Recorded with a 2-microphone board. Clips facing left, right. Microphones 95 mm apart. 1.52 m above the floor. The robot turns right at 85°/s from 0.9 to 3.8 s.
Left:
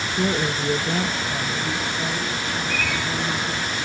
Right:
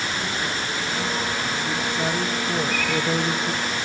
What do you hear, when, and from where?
0.1 s a woman speaking: 110° left, 1.4 m; by 3.5 s 30° right, 1.4 m
2.5 s a bird: 45° left, 8.5 m; by 3.5 s 125° left, 8.5 m